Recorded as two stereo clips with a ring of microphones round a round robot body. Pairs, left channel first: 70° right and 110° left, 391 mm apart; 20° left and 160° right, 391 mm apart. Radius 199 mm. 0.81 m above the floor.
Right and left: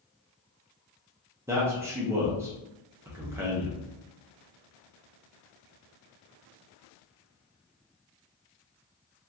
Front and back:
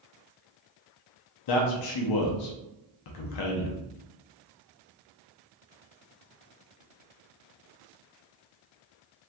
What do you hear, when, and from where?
1.5 s a man speaking: 30° left, 0.5 m